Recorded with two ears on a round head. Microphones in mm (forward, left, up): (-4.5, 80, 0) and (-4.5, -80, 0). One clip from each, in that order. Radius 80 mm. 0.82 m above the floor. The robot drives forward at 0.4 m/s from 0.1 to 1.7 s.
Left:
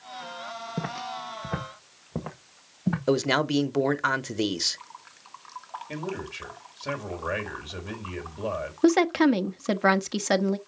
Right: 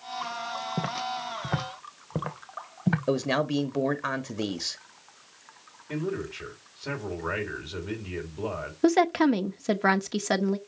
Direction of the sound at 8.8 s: 10° left (ahead or behind).